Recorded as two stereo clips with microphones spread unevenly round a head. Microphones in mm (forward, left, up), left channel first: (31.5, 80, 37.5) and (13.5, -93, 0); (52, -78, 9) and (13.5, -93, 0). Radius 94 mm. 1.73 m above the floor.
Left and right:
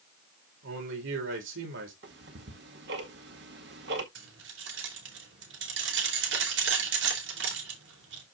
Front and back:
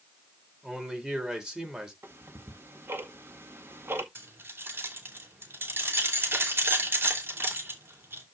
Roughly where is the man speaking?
Right.